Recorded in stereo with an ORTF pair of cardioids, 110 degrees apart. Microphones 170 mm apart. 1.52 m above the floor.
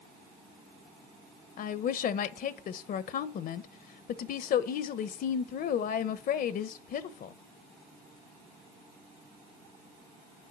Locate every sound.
1.6 s a woman speaking: 60° left, 1.1 m